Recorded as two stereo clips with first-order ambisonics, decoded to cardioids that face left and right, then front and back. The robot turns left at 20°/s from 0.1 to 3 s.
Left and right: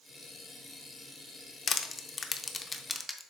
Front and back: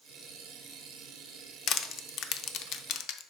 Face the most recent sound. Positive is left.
turn(degrees=10)